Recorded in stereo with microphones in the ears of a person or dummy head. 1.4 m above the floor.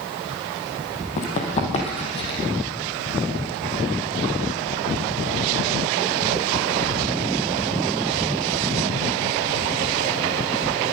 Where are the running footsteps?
40° left (ahead or behind), 3 m; by 2.4 s 25° left (ahead or behind), 3 m.